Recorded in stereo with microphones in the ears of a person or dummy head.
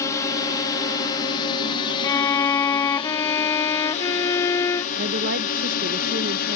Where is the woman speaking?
50° right (ahead or behind).